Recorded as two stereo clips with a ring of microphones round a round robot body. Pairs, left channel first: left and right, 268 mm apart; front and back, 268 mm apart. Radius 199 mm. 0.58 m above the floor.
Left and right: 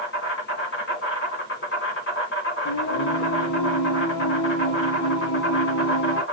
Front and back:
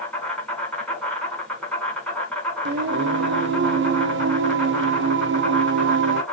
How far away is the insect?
About 2 m.